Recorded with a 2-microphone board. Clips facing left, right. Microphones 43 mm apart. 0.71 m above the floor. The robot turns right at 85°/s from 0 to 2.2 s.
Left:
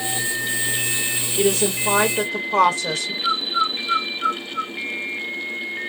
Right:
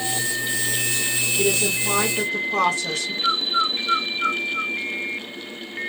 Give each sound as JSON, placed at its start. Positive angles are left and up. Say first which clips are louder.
{"t": 1.4, "sound": "a woman speaking", "louder": "left 4 dB", "azimuth_deg": 70, "distance_m": 0.6}
{"t": 3.2, "sound": "a bird", "louder": "even", "side_deg": -25, "distance_m": 1.2}